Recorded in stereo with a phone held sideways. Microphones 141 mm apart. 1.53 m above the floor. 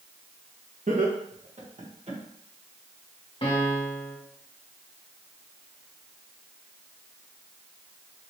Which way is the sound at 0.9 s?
65° right (ahead or behind).